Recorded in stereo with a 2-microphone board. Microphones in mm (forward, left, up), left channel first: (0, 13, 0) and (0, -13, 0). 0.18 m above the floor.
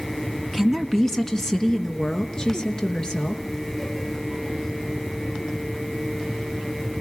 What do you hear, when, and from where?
0.5 s a woman speaking: 5° left (ahead or behind), 1.8 m; by 3.4 s 30° left (ahead or behind), 3.5 m